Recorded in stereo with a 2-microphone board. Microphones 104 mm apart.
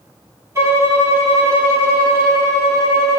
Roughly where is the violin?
Right.